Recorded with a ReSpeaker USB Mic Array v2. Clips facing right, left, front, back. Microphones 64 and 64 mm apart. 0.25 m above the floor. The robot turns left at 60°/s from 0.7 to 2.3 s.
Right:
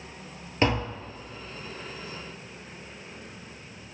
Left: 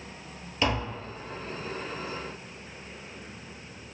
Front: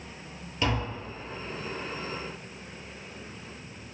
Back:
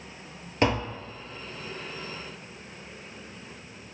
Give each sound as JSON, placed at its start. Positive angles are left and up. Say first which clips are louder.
{"t": 0.6, "sound": "tapping", "louder": "right 3 dB, back 4 dB", "azimuth_deg": -145, "distance_m": 0.8}